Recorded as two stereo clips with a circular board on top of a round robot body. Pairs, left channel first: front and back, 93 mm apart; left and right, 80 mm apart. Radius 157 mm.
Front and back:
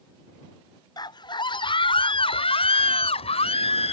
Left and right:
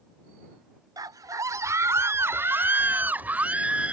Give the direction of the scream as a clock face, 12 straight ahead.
2 o'clock.